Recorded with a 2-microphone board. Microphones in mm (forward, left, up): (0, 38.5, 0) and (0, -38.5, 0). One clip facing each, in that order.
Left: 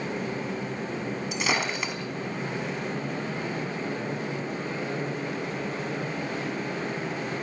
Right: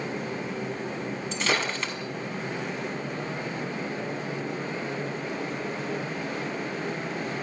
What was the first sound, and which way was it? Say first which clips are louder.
Breaking glass: right 1 dB; 10° left (ahead or behind).